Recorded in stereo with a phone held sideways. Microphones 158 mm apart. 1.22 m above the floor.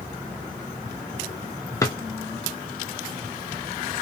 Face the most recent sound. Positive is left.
turn(degrees=20)  # may be behind; listen again after turning